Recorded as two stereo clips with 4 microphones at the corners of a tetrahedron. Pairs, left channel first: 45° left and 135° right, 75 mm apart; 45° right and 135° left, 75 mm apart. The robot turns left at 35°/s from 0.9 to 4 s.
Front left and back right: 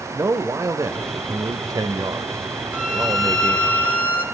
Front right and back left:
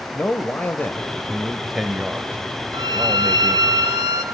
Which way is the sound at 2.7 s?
155° left.